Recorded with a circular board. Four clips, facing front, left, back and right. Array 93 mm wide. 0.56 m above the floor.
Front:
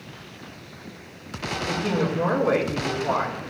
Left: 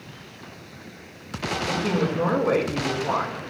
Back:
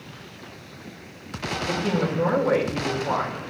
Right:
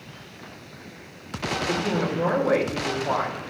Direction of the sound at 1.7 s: 50° left.